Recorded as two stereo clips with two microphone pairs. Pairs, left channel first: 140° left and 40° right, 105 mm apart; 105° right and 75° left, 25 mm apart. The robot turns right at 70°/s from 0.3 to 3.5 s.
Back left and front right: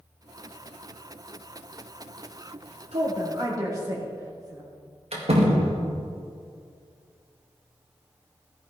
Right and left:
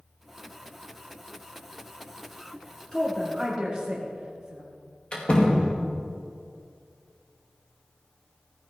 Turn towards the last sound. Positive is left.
turn(degrees=-55)